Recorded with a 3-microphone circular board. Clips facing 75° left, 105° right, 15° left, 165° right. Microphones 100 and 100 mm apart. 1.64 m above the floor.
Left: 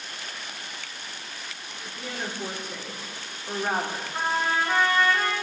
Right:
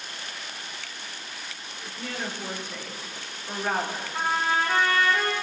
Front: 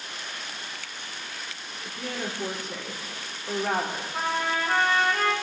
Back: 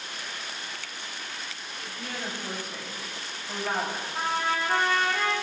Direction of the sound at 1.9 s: Straight ahead.